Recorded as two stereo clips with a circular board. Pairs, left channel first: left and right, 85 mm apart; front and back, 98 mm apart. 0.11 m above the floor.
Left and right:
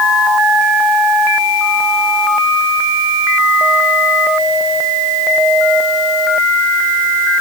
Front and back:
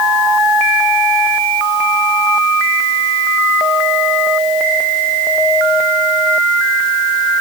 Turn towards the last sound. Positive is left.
No sound to turn to.